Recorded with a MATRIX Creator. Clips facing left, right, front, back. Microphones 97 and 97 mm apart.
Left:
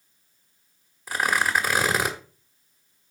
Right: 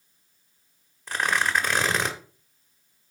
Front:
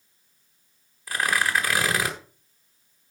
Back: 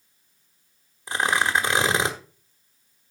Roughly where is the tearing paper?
Behind.